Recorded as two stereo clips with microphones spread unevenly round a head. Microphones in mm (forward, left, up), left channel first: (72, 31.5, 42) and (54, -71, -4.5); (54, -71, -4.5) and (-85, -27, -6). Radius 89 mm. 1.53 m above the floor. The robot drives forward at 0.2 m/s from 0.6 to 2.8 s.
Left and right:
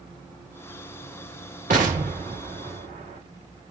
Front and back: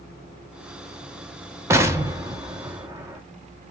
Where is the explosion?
135° right, 1.2 m; by 3.2 s 145° right, 1.3 m.